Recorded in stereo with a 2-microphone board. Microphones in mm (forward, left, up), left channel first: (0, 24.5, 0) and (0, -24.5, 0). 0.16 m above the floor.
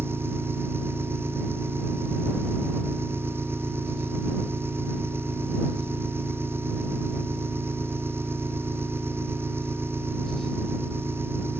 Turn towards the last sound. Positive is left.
turn(degrees=-55)  # may be behind; listen again after turning